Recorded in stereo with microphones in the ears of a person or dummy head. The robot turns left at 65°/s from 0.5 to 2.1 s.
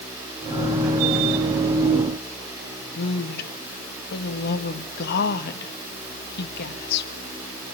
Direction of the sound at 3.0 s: 55° left (ahead or behind).